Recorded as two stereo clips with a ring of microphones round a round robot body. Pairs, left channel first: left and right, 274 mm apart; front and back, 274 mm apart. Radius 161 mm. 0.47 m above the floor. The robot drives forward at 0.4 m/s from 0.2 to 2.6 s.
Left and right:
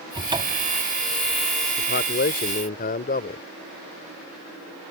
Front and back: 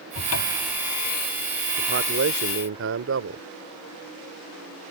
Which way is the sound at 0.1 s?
15° right.